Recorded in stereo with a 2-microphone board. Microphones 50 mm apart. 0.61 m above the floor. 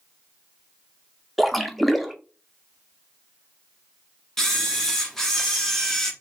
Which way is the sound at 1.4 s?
Centre (ahead or behind).